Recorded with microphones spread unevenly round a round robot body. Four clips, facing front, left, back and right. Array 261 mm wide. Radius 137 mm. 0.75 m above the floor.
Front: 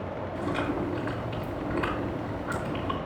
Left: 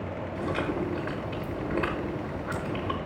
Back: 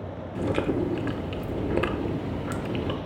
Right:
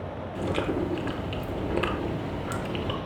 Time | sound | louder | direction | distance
0.3 | chewing | right 2 dB, back 4 dB | 165° right | 0.6 m